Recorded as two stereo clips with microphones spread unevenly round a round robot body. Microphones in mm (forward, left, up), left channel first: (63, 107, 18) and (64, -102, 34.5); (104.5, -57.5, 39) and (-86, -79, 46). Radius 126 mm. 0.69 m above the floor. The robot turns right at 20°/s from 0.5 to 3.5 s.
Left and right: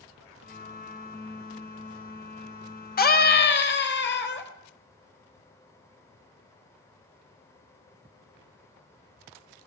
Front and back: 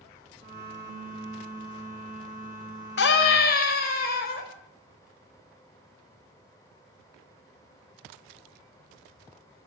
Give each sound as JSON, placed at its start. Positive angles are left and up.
{"t": 3.0, "sound": "a scream", "azimuth_deg": 45, "distance_m": 4.5}